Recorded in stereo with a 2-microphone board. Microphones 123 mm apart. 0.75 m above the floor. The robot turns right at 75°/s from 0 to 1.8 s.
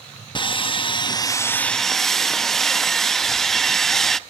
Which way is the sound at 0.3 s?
65° left.